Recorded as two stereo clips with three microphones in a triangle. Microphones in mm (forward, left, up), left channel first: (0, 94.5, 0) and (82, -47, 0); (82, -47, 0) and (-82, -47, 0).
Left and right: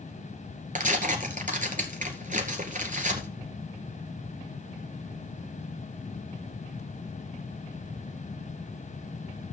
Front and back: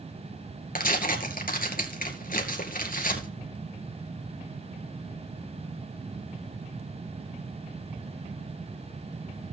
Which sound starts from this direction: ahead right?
Tearing paper, at 0.8 s.